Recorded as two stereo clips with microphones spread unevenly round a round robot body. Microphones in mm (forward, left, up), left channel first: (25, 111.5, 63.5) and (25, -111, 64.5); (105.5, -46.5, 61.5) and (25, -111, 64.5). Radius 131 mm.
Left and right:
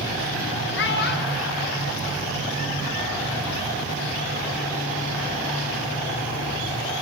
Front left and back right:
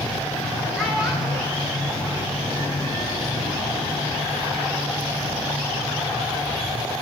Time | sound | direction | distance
0.8 | a child speaking | 130° left | 1.3 m